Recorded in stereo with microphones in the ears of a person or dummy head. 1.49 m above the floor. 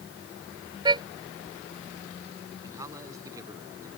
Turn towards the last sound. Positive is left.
turn(degrees=-20)  # may be behind; listen again after turning